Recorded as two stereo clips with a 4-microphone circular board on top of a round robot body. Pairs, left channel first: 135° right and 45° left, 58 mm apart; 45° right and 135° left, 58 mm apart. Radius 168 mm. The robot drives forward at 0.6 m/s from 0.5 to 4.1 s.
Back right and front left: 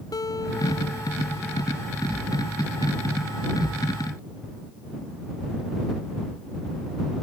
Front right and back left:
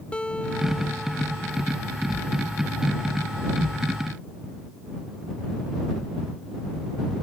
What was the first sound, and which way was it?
A guitar, 120° right.